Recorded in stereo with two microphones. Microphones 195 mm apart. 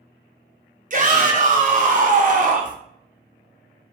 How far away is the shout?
About 0.7 m.